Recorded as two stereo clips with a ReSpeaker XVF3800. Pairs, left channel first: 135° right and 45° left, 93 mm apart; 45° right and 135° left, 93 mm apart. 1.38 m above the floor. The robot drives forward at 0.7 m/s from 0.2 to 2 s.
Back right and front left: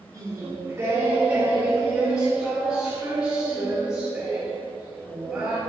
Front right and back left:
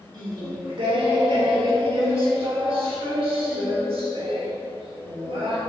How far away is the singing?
About 2 m.